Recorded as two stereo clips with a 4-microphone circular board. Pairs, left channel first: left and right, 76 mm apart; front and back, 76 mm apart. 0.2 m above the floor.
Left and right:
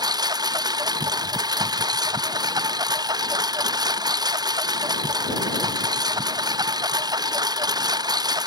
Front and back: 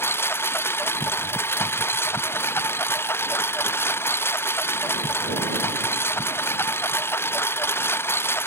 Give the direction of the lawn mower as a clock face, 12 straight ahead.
2 o'clock.